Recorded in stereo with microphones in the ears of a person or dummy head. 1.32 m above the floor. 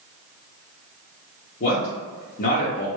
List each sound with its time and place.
1.6 s a man speaking: 45° left (ahead or behind), 0.6 m